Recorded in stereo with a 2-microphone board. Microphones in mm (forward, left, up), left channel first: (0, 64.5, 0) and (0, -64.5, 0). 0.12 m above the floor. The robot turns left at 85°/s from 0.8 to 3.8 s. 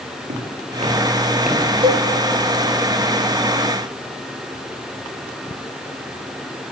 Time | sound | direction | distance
0.3 | footsteps | 80° right | 3.5 m
1.8 | a cowbell | 45° right (ahead or behind) | 1.8 m